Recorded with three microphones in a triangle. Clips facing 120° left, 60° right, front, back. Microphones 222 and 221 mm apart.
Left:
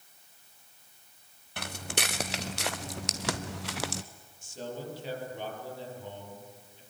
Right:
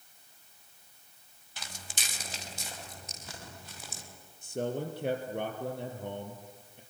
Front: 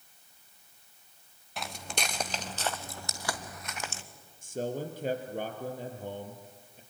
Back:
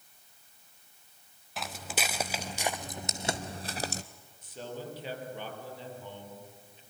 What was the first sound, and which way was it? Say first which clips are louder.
Footsteps: left 12 dB, even; 90° left.